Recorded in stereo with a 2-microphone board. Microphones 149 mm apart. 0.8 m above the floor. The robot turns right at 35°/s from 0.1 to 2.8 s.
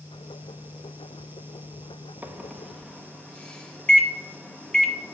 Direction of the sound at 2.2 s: 10° right (ahead or behind).